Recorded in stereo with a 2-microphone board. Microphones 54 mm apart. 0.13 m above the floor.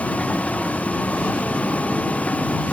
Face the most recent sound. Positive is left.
turn(degrees=25)  # may be behind; listen again after turning